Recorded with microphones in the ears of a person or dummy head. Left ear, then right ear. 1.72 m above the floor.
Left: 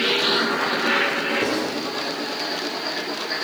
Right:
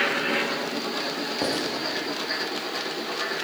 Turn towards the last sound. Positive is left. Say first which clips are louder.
# left 3 dB
turn(degrees=-35)  # may be behind; listen again after turning